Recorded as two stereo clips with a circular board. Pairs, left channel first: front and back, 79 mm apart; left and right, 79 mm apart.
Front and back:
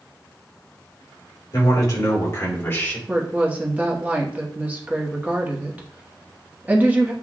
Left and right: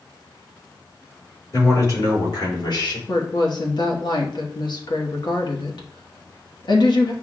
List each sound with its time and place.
1.5 s a man speaking: 40° left, 2.5 m; by 3.0 s 70° left, 1.7 m
3.1 s a woman speaking: 110° left, 1.1 m